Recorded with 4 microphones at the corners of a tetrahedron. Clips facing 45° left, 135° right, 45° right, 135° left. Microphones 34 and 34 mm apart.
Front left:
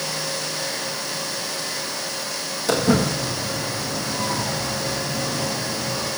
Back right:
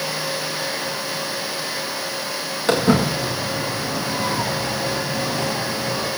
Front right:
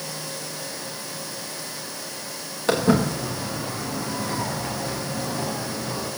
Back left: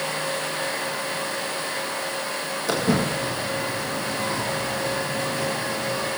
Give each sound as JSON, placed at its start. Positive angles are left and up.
{"t": 2.7, "sound": "footsteps", "azimuth_deg": -85, "distance_m": 8.0}